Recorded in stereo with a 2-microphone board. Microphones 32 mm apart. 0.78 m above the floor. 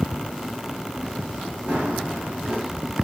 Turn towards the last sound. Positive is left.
turn(degrees=-65)  # may be behind; listen again after turning